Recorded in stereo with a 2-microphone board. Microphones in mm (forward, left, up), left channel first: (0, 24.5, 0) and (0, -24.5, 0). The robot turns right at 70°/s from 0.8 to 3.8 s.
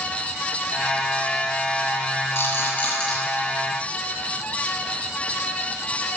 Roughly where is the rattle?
Left.